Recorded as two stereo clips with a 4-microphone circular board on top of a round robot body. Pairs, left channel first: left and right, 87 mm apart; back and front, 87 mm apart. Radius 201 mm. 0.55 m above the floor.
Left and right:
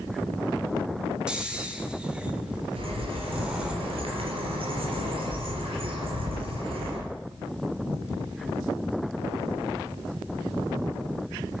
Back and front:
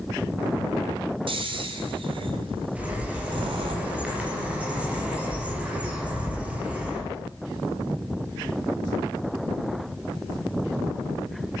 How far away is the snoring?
About 2.5 m.